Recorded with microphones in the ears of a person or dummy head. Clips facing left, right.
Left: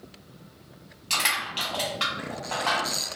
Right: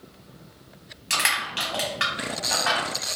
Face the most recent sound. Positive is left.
turn(degrees=-20)  # may be behind; listen again after turning